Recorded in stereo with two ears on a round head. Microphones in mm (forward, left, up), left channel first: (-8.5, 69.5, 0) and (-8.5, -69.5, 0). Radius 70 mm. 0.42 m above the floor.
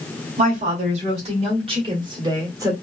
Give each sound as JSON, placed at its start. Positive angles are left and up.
{"t": 0.4, "sound": "a woman speaking", "side_deg": -50, "distance_m": 1.9}